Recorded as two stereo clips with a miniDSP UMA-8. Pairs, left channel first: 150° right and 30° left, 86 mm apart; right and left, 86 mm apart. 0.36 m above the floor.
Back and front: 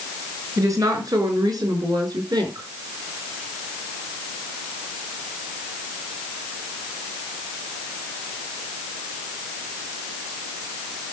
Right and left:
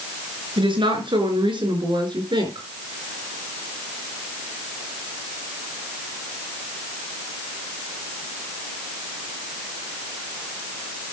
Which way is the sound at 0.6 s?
80° left.